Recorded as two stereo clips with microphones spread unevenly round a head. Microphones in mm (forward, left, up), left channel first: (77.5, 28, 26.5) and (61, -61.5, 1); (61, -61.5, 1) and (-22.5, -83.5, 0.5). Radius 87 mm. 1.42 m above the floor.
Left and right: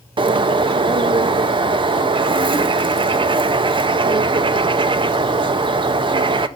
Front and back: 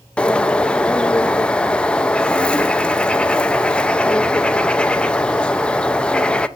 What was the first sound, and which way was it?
A bird, 65° right.